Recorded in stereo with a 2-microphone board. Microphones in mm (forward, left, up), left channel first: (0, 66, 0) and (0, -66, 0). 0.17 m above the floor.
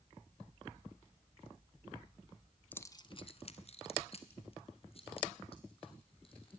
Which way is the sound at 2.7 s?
15° left (ahead or behind).